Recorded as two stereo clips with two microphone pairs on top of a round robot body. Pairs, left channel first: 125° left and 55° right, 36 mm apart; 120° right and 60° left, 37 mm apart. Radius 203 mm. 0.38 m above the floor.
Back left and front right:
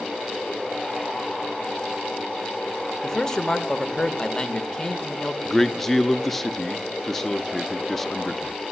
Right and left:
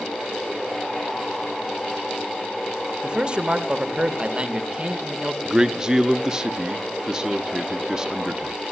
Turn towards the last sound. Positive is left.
turn(degrees=20)